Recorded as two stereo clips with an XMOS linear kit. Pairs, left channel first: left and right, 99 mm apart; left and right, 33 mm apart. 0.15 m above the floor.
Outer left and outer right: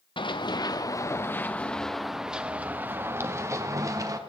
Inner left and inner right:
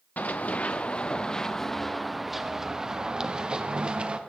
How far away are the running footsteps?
About 1.1 m.